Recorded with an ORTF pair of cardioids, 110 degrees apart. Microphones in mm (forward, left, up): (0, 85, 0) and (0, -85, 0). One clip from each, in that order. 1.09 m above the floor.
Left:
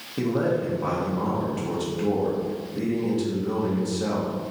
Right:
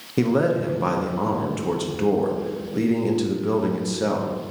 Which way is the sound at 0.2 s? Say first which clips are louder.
Right 4 dB; 40° right.